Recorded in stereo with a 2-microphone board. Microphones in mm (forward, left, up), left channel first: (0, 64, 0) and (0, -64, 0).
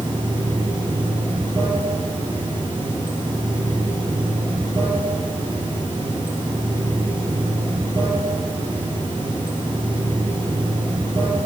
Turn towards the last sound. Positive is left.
turn(degrees=-40)  # may be behind; listen again after turning